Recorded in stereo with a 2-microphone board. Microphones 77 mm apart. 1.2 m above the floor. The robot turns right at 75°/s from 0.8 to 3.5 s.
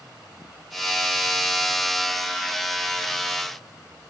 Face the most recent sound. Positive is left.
No sound to turn to.